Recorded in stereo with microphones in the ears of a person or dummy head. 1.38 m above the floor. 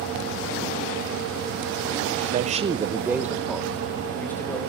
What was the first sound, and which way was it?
A man speaking, 40° right (ahead or behind).